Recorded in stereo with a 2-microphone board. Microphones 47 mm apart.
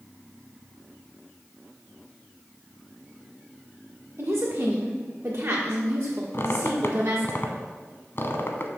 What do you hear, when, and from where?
4.2 s a woman speaking: 45° right (ahead or behind), 1.7 m
6.3 s a squeak: 50° left (ahead or behind), 0.9 m